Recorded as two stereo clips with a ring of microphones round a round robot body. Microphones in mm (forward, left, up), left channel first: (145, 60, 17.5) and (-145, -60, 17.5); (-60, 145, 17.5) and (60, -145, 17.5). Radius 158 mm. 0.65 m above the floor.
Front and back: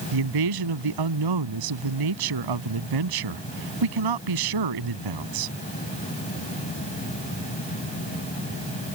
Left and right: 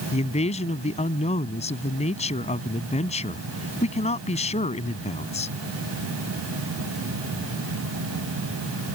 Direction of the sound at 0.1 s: 175° right.